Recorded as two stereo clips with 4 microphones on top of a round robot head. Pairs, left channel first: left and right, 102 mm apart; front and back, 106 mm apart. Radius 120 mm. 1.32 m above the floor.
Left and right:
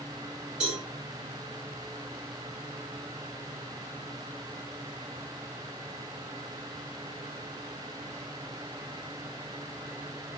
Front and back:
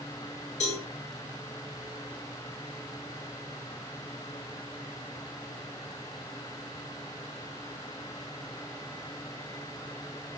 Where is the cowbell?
10° right, 6.5 m.